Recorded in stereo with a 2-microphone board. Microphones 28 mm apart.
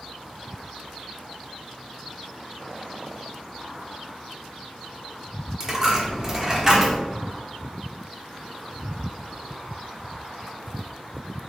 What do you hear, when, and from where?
5.6 s a dropped coin: 20° right (ahead or behind), 0.9 m